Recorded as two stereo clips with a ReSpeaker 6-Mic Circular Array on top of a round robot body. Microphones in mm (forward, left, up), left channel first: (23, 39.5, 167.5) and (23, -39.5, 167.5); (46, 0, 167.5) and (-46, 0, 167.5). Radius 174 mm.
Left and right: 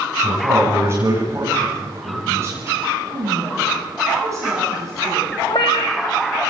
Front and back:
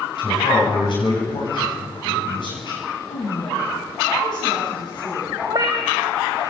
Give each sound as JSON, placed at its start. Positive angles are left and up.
{"t": 0.2, "sound": "a man speaking", "azimuth_deg": -35, "distance_m": 7.5}
{"t": 3.1, "sound": "a woman speaking", "azimuth_deg": -40, "distance_m": 9.5}
{"t": 5.5, "sound": "a cat meowing", "azimuth_deg": 130, "distance_m": 0.5}